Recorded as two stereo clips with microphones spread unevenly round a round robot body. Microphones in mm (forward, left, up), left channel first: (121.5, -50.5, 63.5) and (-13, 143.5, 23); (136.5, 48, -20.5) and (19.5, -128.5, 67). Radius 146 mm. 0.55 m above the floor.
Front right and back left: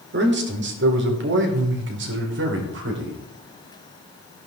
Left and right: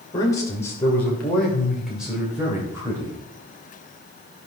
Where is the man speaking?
110° left, 2.5 m; by 3.2 s 150° left, 3 m.